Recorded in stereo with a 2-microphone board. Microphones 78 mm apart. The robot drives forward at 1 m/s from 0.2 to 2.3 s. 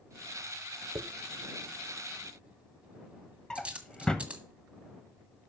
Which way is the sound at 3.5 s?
10° left (ahead or behind).